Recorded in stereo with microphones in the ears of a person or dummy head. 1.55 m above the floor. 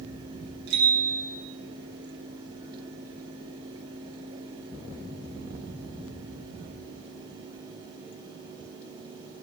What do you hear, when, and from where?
0.7 s a bicycle bell: 65° right (ahead or behind), 9 m